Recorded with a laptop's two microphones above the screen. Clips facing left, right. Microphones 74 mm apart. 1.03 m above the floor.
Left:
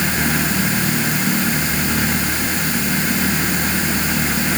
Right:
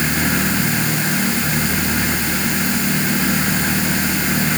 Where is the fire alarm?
No fire alarm in this recording.